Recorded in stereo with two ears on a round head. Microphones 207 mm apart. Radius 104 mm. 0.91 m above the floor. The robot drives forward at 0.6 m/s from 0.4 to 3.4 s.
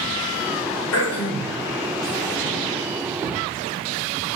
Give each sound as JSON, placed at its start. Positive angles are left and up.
{"t": 0.9, "sound": "throat clearing", "side_deg": 75, "distance_m": 3.0}